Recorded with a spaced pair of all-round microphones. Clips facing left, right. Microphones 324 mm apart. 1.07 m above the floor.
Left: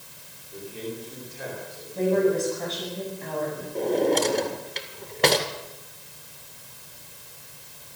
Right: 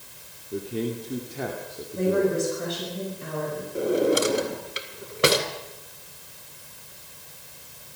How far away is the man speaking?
About 2.5 m.